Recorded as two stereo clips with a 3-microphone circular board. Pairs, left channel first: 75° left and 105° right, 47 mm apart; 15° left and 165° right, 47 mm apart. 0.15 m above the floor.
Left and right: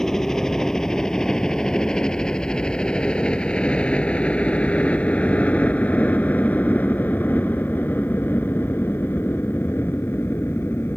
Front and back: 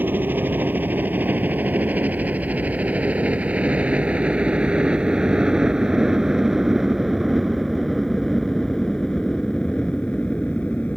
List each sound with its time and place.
0.0 s a helicopter: 155° left; by 11.0 s 70° left